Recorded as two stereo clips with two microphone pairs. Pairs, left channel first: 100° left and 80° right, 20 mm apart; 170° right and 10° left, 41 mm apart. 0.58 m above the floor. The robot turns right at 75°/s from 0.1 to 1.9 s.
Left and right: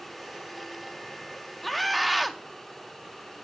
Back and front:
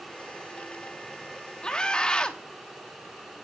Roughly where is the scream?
Behind.